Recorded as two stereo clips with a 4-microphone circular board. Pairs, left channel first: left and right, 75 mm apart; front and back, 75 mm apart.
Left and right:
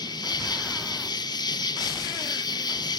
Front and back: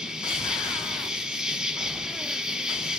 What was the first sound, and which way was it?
An insect, 100° left.